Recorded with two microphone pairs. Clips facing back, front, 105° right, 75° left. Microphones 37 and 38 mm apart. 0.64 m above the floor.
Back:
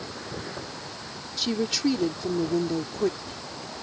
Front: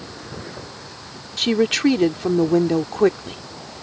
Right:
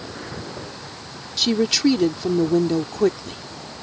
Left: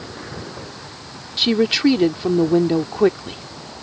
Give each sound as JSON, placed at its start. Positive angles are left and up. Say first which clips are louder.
{"t": 1.4, "sound": "a woman speaking", "louder": "front 9 dB, left 3 dB", "azimuth_deg": 15}